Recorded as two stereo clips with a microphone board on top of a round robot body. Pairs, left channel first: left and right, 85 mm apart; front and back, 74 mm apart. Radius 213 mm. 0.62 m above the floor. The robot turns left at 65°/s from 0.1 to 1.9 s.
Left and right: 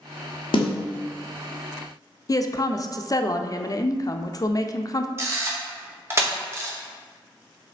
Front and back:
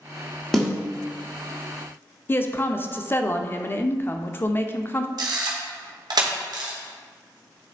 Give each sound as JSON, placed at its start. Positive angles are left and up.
{"t": 0.5, "sound": "a snare drum", "azimuth_deg": 85, "distance_m": 1.3}
{"t": 2.3, "sound": "a woman speaking", "azimuth_deg": 55, "distance_m": 0.7}
{"t": 5.2, "sound": "a camera shutter", "azimuth_deg": -150, "distance_m": 1.1}